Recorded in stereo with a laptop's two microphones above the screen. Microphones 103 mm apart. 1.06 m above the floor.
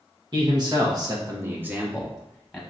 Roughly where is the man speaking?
Right.